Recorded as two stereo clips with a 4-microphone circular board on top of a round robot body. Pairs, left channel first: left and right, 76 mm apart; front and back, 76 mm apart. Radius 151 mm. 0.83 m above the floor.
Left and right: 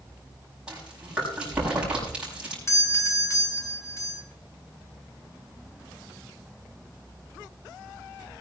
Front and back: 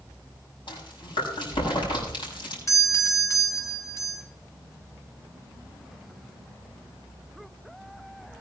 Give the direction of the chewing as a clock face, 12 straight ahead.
12 o'clock.